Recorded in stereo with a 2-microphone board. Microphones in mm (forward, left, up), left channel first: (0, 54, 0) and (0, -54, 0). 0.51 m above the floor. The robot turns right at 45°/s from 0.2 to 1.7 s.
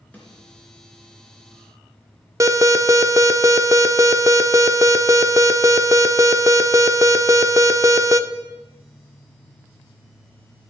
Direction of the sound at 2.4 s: 30° right (ahead or behind).